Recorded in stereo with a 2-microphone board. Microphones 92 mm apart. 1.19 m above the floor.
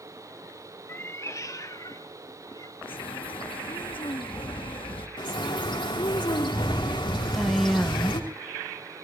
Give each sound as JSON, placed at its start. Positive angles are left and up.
{"t": 0.9, "sound": "a cat meowing", "side_deg": 25, "distance_m": 0.6}
{"t": 2.8, "sound": "a bird", "side_deg": 70, "distance_m": 1.0}
{"t": 5.2, "sound": "a bird", "side_deg": 65, "distance_m": 3.0}
{"t": 7.3, "sound": "a woman speaking", "side_deg": 0, "distance_m": 0.9}